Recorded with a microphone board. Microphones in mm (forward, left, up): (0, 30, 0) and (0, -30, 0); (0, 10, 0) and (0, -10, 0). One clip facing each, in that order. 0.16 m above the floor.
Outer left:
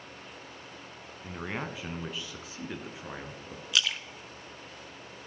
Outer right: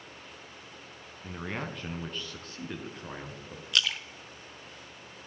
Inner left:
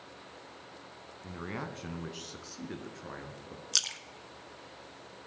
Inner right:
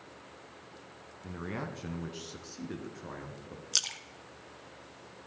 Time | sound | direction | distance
1.2 | a man speaking | 5° left (ahead or behind) | 1.0 m
3.7 | a splash | 5° left (ahead or behind) | 0.7 m